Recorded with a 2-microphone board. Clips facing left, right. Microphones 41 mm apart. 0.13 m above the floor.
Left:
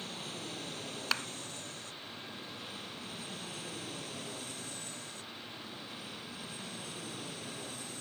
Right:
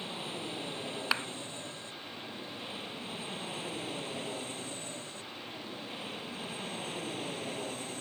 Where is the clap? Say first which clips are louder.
Right 2 dB; 15° right (ahead or behind).